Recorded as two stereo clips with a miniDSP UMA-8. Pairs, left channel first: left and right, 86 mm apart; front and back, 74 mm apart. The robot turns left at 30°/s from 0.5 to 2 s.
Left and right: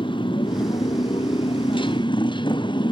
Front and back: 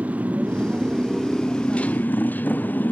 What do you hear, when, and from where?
0.0 s a motorcycle: 110° left; by 2.9 s 65° left